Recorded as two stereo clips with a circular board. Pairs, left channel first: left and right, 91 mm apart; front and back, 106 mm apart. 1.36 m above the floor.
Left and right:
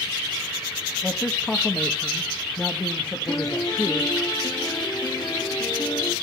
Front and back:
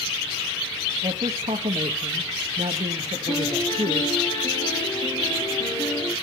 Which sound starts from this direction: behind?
A man speaking, at 1.0 s.